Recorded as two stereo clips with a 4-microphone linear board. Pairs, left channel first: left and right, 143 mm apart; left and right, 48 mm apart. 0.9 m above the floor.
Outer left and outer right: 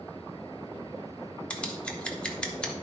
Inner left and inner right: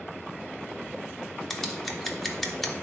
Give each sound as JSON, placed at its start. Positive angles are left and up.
{"t": 1.5, "sound": "scissors", "side_deg": 5, "distance_m": 1.4}